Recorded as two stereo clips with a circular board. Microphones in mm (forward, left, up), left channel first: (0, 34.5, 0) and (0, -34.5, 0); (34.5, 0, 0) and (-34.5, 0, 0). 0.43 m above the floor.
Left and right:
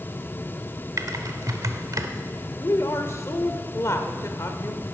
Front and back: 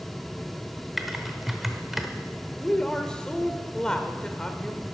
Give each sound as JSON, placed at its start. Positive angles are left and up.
{"t": 1.0, "sound": "typing on a keyboard", "azimuth_deg": -95, "distance_m": 0.8}
{"t": 2.6, "sound": "a woman speaking", "azimuth_deg": 75, "distance_m": 1.0}